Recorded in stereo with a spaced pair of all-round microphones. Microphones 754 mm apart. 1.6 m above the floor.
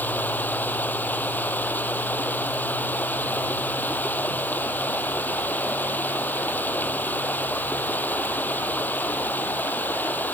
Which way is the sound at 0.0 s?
Centre (ahead or behind).